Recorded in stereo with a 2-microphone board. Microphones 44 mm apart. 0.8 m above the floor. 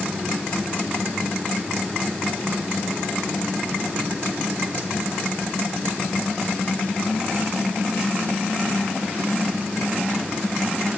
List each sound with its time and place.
Only background noise.